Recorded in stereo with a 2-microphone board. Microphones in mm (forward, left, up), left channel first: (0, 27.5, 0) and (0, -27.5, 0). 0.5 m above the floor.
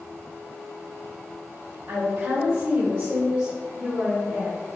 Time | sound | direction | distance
1.9 | a woman speaking | 60° right (ahead or behind) | 1.9 m